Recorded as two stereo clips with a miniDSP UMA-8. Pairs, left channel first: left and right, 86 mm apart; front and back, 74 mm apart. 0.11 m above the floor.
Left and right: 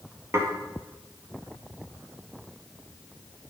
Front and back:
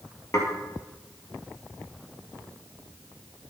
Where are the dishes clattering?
40° right, 1.9 m.